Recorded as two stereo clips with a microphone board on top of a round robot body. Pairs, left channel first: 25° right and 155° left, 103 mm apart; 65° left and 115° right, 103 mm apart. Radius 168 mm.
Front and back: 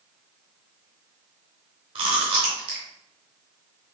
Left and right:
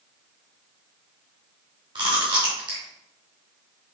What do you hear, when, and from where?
1.9 s chewing: 160° right, 1.0 m